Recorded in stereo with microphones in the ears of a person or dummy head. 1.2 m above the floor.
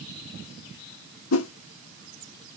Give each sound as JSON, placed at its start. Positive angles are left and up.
{"t": 1.3, "sound": "a whoosh", "side_deg": 80, "distance_m": 0.9}